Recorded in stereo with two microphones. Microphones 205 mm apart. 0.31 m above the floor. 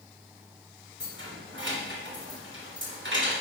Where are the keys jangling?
75° right (ahead or behind), 1.9 m.